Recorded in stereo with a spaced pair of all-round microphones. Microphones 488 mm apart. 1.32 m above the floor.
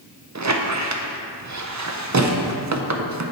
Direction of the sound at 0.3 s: 40° right (ahead or behind).